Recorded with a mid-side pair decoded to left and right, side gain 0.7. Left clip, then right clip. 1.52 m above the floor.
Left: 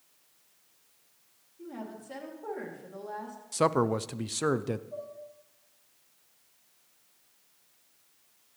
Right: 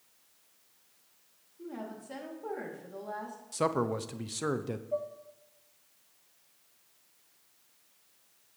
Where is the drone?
I don't hear a drone.